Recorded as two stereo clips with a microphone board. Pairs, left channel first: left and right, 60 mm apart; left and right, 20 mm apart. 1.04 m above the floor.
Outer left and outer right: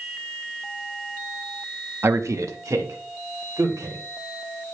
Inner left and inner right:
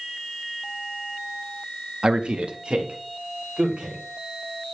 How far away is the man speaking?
About 0.9 m.